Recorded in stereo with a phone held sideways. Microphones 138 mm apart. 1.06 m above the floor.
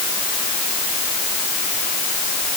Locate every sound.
Only background noise.